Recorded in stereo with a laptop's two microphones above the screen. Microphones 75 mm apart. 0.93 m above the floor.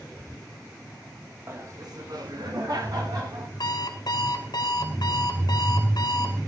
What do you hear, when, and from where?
1.5 s laughter: 35° right (ahead or behind), 1.2 m; by 3.5 s 60° right (ahead or behind), 3 m
3.6 s an alarm clock: 70° left (ahead or behind), 2.5 m